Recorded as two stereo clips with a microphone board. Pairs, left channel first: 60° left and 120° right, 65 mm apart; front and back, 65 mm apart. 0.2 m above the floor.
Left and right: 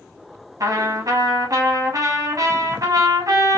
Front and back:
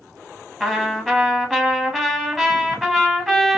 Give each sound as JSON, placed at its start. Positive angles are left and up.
{"t": 0.6, "sound": "a trumpet", "azimuth_deg": -90, "distance_m": 0.9}